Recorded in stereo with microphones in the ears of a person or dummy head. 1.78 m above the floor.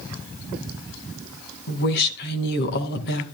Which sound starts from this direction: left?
A woman speaking, at 1.7 s.